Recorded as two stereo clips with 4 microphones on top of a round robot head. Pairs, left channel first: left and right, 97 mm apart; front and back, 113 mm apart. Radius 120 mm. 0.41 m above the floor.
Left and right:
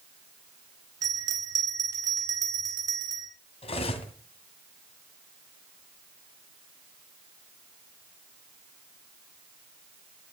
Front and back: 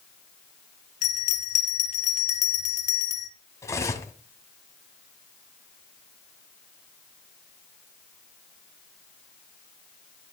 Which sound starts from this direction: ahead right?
A bell, at 1.0 s.